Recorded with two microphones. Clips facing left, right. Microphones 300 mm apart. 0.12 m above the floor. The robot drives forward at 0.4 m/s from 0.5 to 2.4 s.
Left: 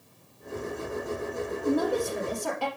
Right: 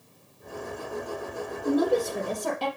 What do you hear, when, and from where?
1.6 s a woman speaking: 45° right (ahead or behind), 3.5 m; by 2.7 s 40° right (ahead or behind), 4 m